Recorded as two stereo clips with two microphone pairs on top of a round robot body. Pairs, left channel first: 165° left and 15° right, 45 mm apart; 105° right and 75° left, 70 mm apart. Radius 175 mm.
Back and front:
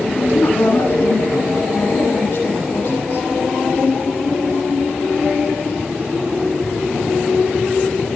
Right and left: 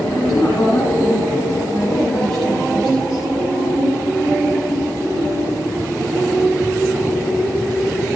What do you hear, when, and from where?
0.1 s a woman speaking: 175° left, 9.5 m